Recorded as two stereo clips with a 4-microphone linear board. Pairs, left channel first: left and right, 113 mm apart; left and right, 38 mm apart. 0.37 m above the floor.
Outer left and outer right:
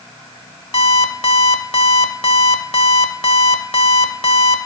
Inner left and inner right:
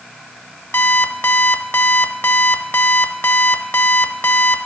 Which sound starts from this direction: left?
An alarm clock, at 0.7 s.